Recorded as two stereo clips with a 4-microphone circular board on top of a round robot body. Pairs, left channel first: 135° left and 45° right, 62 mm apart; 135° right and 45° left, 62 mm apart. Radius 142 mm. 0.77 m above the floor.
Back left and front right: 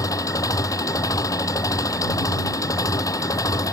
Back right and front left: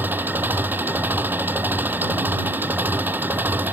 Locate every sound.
0.0 s an engine running: 105° left